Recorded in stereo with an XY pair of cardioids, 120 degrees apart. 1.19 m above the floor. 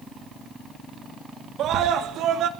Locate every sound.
1.6 s a scream: 65° right, 2.5 m